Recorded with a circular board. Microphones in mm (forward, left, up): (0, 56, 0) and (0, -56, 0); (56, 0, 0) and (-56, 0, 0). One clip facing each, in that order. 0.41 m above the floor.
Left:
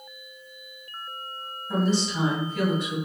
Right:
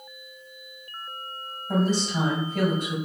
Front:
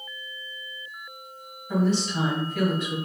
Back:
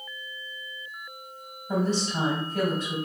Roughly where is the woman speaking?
Behind right.